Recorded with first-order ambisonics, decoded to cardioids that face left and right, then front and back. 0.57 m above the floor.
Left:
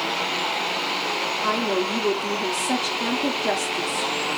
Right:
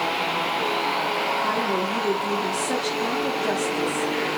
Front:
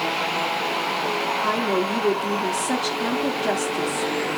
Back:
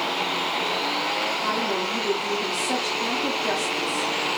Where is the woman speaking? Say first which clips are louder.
Left 1 dB, front 2 dB; 30° left, 0.6 m.